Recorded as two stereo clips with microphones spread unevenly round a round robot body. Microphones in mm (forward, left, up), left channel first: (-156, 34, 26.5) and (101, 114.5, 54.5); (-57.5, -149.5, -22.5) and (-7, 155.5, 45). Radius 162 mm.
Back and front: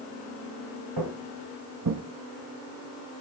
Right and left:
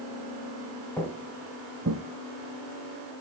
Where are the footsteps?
15° right, 1.4 m; by 2.0 s 40° left, 1.1 m.